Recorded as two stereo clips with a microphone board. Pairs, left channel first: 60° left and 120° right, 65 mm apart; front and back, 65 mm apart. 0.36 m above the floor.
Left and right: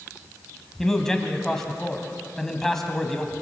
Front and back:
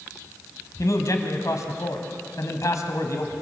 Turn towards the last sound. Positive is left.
turn(degrees=-20)